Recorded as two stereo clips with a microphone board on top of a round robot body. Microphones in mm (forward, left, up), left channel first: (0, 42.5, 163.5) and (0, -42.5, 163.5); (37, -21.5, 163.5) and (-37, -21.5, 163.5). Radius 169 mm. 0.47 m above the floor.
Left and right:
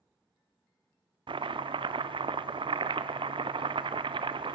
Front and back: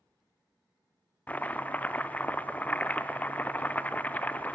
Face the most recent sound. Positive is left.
turn(degrees=-70)